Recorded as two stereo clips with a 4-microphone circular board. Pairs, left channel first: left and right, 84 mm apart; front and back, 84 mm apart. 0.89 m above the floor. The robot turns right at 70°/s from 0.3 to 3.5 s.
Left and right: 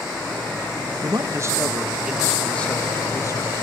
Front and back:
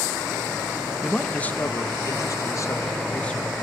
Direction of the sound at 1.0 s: 90° right.